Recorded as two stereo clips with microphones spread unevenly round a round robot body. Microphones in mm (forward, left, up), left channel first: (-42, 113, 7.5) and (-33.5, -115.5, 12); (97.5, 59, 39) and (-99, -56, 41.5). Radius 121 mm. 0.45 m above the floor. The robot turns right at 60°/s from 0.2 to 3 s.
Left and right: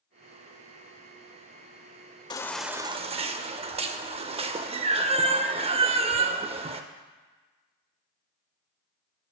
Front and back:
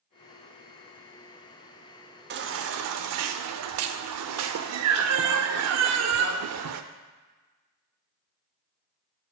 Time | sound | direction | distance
2.3 | a baby crying | 165° left | 0.5 m